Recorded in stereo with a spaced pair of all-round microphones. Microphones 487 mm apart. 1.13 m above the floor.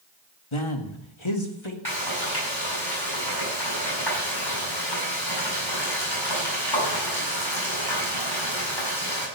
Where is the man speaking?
85° left, 1.7 m; by 1.8 s 70° left (ahead or behind), 2.5 m.